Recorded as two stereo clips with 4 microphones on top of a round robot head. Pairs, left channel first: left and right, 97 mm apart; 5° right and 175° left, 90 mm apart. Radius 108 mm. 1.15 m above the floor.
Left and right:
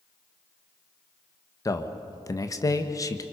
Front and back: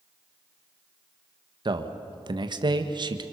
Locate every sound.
1.6 s a man speaking: 145° left, 1.5 m